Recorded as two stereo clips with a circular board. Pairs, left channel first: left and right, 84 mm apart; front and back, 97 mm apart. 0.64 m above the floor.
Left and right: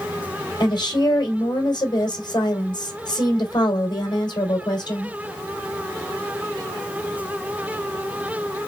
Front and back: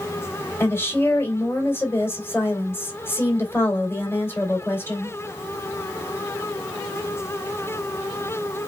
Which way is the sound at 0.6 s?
65° left.